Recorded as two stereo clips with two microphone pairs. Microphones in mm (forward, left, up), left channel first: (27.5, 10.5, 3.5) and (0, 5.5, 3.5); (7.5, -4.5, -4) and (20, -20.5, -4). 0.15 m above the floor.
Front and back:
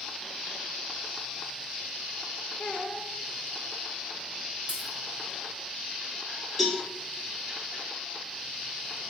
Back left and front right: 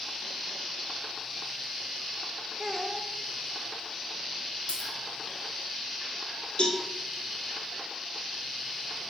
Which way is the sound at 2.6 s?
Straight ahead.